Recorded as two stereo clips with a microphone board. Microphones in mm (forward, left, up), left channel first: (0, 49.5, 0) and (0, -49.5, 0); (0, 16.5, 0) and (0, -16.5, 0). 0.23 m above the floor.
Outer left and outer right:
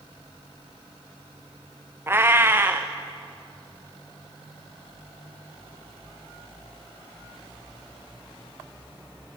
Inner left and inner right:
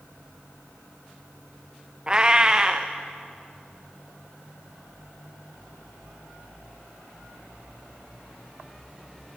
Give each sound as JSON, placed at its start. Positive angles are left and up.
{"t": 2.1, "sound": "a cat meowing", "side_deg": -25, "distance_m": 2.0}